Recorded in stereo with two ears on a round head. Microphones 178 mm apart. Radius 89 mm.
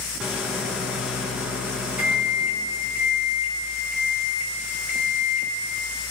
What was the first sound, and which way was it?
A microwave, 5° right (ahead or behind).